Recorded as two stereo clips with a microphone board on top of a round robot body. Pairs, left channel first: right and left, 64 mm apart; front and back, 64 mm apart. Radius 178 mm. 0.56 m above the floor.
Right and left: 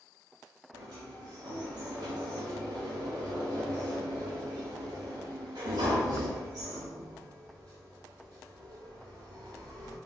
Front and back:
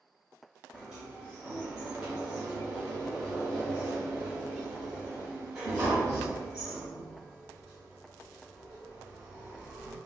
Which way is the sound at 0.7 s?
100° left.